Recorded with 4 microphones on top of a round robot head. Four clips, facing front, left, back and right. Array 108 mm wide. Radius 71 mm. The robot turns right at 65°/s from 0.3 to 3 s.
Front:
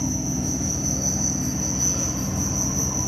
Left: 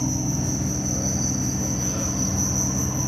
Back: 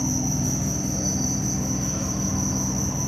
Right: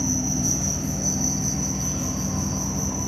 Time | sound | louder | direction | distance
0.0 | an insect | even, back 1 dB | 105° right | 8 m